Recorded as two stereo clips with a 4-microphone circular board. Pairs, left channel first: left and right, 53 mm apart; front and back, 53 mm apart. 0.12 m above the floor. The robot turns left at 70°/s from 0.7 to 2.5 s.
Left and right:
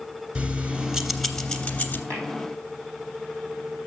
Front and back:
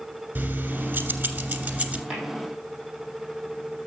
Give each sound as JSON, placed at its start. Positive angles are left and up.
{"t": 0.3, "sound": "keys jangling", "azimuth_deg": -150, "distance_m": 0.9}
{"t": 2.1, "sound": "tapping", "azimuth_deg": -110, "distance_m": 3.0}